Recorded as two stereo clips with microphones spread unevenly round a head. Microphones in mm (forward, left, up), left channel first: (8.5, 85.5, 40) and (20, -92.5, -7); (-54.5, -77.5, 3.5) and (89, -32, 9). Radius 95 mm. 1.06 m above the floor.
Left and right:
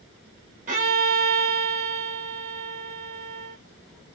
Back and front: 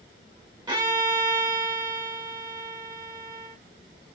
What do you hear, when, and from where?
0.7 s a violin: 45° right, 1.5 m